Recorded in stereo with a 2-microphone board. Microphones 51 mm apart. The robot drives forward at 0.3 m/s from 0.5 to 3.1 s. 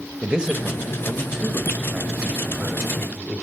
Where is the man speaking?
15° right (ahead or behind), 0.9 m; by 3.4 s 10° right (ahead or behind), 1.4 m.